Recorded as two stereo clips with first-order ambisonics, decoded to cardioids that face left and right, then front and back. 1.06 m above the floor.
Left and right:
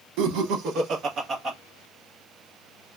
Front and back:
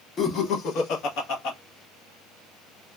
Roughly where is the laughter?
Ahead right.